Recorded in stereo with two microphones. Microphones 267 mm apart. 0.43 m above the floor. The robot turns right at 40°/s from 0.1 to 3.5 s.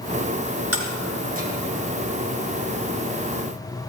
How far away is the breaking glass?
About 3.5 m.